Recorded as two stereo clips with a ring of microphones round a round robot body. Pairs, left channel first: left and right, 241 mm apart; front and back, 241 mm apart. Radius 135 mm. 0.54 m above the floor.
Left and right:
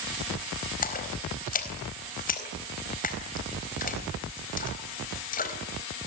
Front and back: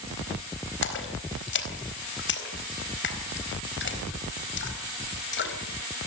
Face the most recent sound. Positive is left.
turn(degrees=35)